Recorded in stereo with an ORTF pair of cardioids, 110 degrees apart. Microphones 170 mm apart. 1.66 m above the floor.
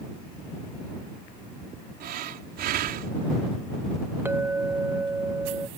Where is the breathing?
65° right.